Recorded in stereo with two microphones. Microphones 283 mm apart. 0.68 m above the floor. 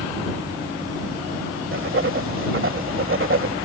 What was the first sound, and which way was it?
Writing, 45° right (ahead or behind).